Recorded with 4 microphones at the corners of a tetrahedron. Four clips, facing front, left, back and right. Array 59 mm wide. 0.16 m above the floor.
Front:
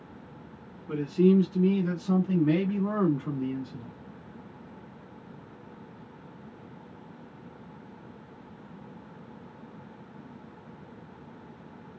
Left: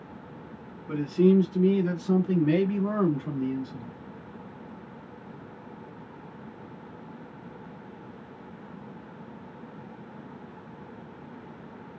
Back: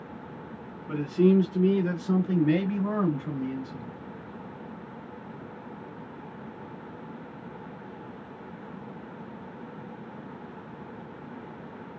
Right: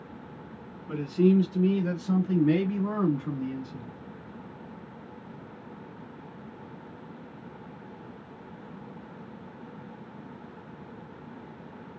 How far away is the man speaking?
About 1.7 m.